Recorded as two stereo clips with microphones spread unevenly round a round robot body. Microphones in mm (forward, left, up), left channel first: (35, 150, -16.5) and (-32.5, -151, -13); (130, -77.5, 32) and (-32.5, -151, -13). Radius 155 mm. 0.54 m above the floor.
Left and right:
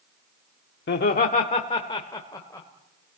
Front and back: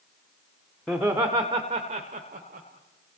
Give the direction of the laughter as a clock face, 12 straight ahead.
8 o'clock.